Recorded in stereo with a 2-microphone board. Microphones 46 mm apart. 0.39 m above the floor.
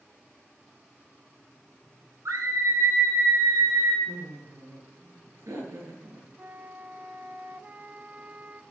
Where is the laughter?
75° right (ahead or behind), 8 m.